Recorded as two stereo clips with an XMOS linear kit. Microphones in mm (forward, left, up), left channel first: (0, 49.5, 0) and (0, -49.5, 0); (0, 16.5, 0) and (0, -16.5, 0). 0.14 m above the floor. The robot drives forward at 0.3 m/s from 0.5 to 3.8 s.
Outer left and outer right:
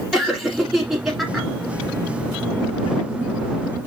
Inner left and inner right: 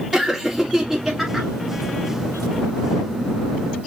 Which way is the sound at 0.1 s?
5° right (ahead or behind).